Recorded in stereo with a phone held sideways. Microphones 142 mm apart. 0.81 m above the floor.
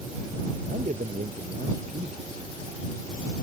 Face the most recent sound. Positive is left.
turn(degrees=-70)  # may be behind; listen again after turning